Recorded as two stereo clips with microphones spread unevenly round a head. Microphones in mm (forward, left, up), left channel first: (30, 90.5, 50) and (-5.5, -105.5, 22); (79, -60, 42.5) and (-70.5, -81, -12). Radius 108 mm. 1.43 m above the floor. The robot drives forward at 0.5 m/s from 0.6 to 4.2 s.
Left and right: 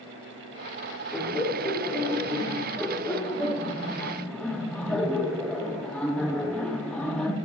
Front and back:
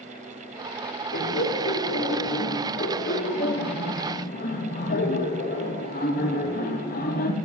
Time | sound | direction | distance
1.1 | laughter | 5° right | 3 m